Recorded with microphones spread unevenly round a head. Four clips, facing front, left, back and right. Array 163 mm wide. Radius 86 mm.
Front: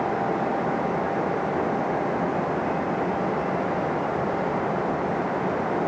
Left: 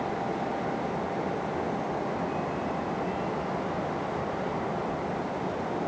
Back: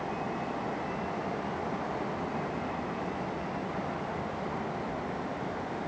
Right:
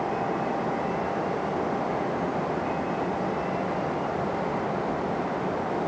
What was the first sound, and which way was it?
A fan, 15° right.